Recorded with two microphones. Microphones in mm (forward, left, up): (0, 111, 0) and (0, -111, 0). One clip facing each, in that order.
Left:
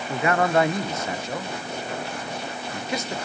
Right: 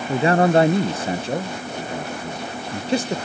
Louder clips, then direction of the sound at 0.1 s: Right 5 dB; 30° right (ahead or behind).